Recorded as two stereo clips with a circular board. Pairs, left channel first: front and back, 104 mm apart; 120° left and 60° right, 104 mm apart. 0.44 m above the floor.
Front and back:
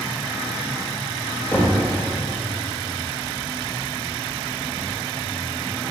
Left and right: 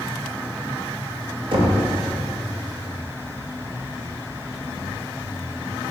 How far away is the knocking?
About 0.7 m.